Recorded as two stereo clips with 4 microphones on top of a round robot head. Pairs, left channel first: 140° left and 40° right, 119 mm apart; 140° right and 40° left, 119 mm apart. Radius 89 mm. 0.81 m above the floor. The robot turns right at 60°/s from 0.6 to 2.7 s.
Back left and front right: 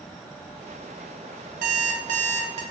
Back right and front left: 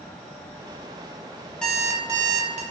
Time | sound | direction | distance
1.6 | an alarm clock | 55° right | 0.6 m